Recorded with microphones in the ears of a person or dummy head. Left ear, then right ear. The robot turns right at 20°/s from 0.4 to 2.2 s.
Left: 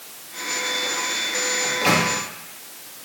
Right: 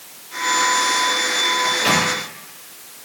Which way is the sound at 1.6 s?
10° left (ahead or behind).